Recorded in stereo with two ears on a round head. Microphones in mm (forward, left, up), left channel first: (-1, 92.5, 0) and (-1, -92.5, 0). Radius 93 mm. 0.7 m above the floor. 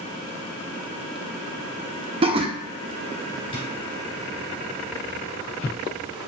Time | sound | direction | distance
2.2 | laughter | 25° right (ahead or behind) | 0.5 m
3.5 | a drawer | 25° left (ahead or behind) | 1.7 m